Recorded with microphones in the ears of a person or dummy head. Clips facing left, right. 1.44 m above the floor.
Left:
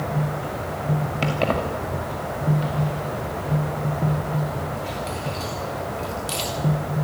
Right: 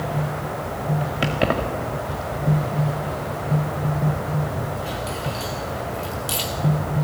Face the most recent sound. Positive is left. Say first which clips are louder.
# right 1 dB
turn(degrees=-10)  # may be behind; listen again after turning